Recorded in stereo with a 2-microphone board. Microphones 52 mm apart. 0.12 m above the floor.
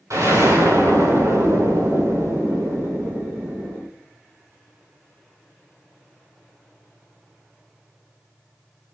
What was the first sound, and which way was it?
An explosion, 85° right.